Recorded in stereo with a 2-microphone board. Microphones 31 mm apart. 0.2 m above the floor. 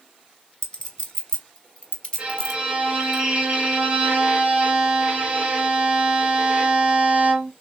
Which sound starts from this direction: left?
A clink, at 0.6 s.